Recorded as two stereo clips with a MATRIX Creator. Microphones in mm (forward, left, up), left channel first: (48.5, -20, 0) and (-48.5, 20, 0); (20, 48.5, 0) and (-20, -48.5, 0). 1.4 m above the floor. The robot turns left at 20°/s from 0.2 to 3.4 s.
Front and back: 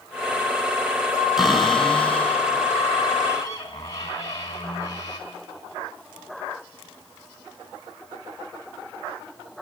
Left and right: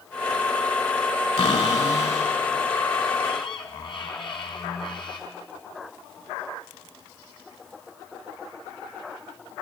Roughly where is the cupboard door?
Left.